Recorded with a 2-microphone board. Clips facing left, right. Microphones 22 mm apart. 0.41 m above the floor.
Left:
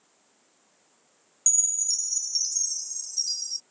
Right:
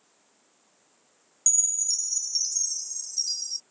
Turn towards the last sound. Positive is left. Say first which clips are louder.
# even
turn(degrees=0)  # may be behind; listen again after turning